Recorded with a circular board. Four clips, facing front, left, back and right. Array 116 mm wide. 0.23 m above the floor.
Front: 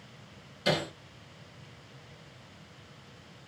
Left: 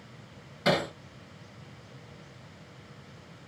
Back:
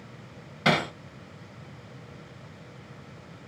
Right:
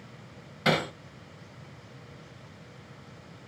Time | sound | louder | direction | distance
0.7 | hammering | even, back 5 dB | 170° right | 1.8 m